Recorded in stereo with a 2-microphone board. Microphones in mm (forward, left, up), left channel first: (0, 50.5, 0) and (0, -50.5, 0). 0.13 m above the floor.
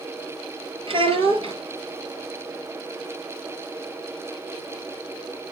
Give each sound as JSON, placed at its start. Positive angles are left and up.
{"t": 0.9, "sound": "a child speaking", "side_deg": -60, "distance_m": 1.6}